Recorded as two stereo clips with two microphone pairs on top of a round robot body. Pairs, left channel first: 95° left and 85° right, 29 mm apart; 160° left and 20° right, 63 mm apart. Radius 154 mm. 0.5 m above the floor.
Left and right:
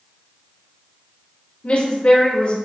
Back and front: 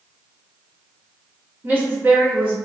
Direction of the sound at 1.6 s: 50° left.